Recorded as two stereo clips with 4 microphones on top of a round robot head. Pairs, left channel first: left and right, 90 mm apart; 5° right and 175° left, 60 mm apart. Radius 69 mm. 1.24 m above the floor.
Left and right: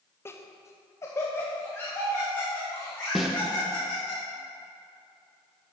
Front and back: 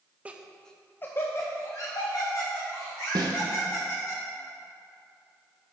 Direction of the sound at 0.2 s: 130° left.